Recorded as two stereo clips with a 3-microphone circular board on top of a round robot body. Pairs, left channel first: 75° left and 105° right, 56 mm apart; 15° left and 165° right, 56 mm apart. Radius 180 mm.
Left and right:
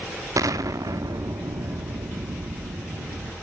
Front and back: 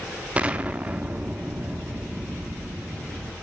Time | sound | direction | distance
0.4 | an explosion | 95° right | 1.6 m